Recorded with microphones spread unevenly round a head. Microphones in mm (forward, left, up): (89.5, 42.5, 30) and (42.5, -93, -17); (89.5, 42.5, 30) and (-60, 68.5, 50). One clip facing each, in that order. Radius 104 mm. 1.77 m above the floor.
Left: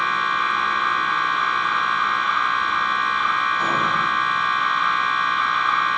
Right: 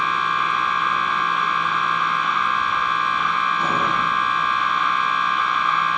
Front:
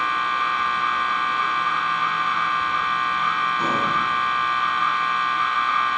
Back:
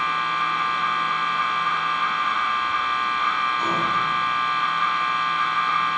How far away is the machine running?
About 3 m.